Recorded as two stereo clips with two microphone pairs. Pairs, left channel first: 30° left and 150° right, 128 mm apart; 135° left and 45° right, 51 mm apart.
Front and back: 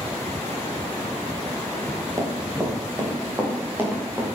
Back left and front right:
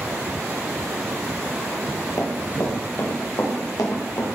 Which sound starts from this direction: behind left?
Running footsteps, at 2.2 s.